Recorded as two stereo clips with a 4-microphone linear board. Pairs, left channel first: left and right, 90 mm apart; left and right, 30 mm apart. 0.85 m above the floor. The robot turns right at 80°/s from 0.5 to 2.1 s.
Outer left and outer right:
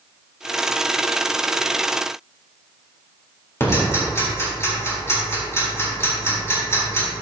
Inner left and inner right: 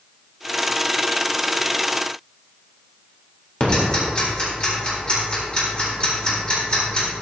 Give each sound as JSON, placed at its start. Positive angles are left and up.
{"t": 3.6, "sound": "ticking", "side_deg": 30, "distance_m": 3.5}